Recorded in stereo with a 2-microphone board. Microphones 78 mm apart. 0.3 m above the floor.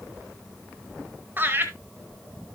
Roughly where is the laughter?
Right.